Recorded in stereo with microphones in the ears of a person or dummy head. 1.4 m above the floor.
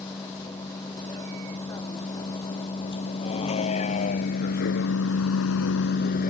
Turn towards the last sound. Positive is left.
turn(degrees=55)  # may be behind; listen again after turning